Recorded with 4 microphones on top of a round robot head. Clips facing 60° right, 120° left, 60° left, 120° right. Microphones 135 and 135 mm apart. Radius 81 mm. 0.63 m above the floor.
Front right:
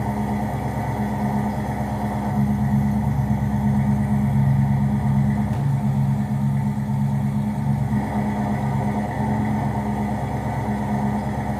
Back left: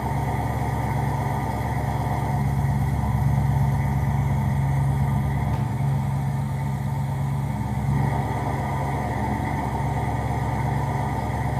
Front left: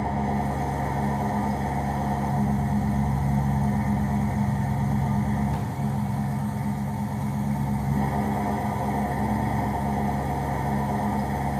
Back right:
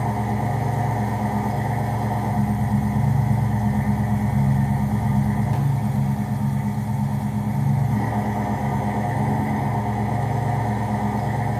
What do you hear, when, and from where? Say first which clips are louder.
0.0 s an engine running: front right 3 dB, back right 2 dB; 100° right, 4 m